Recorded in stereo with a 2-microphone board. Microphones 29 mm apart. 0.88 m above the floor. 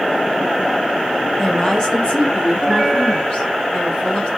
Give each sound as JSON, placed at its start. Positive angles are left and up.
{"t": 1.4, "sound": "a woman speaking", "side_deg": 25, "distance_m": 0.9}